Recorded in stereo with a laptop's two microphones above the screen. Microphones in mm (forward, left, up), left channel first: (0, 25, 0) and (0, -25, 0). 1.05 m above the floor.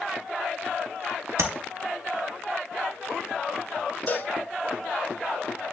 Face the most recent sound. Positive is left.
turn(degrees=35)  # may be behind; listen again after turning